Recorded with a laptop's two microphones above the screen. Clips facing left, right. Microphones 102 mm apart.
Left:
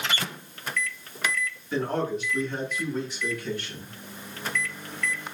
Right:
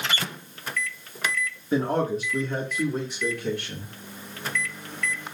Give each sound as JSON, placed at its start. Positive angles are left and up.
{"t": 1.7, "sound": "a man speaking", "side_deg": -35, "distance_m": 1.9}